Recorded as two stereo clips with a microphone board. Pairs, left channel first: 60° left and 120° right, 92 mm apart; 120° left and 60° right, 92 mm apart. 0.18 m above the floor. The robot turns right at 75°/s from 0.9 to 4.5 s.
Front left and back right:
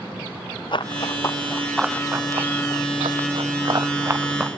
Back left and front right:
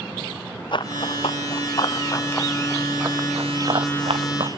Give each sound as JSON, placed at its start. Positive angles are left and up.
{"t": 0.7, "sound": "running footsteps", "azimuth_deg": 90}